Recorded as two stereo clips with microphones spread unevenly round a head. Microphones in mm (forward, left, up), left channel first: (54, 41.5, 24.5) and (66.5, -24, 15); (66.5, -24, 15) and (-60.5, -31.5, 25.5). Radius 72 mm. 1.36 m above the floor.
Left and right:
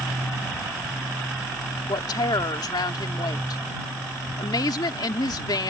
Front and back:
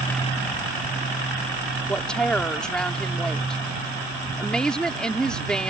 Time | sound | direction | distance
1.9 | a woman speaking | 90° left | ?